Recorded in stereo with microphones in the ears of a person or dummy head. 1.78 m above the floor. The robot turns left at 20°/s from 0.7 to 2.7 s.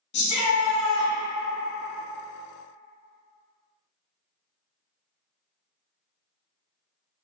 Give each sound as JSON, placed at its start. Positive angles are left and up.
{"t": 0.1, "sound": "a shout", "side_deg": 60, "distance_m": 0.8}